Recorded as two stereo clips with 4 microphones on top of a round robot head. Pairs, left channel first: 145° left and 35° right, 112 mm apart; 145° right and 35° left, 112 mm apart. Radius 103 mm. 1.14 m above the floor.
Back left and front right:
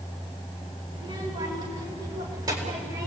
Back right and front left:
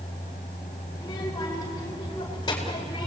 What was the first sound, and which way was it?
A child speaking, 80° right.